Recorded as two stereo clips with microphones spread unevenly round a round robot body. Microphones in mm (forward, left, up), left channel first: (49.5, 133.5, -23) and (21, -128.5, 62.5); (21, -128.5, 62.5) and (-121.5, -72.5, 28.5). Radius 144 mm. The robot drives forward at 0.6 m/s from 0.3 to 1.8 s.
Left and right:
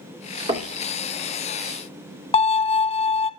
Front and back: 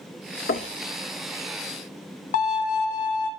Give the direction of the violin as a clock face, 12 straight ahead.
12 o'clock.